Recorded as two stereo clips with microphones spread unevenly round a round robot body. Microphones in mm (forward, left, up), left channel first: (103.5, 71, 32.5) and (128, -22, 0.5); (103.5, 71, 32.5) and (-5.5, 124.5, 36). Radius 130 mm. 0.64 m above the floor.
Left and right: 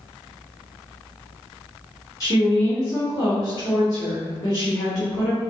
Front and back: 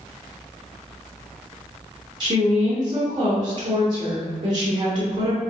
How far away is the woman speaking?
About 1.1 m.